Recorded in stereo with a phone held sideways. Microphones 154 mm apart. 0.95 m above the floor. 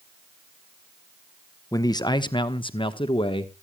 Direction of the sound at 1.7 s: 25° left (ahead or behind).